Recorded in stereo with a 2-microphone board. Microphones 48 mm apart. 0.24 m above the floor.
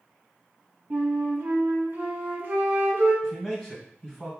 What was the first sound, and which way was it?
A flute, 40° right (ahead or behind).